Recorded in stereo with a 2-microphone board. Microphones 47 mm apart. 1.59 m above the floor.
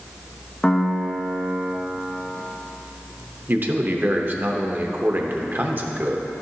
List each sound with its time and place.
0.6 s a piano: 20° left (ahead or behind), 0.9 m
3.5 s a man speaking: 40° right (ahead or behind), 0.8 m